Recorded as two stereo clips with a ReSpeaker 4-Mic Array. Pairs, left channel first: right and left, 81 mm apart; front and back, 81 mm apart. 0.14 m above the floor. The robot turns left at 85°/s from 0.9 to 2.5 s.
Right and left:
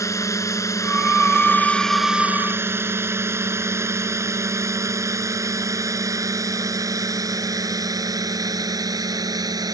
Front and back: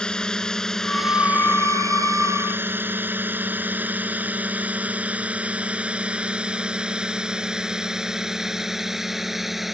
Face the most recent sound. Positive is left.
turn(degrees=95)